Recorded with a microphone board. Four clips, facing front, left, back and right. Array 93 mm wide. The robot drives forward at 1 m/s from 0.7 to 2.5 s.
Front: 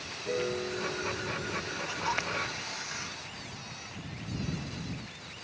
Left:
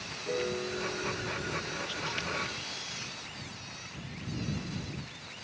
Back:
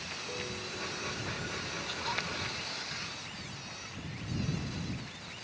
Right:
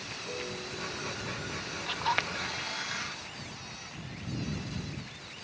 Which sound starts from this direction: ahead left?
A piano, at 0.2 s.